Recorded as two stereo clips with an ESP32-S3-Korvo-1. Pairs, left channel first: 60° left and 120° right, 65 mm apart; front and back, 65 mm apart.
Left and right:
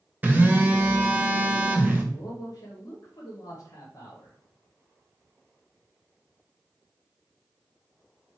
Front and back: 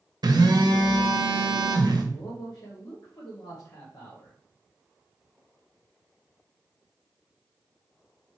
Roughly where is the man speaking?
Ahead left.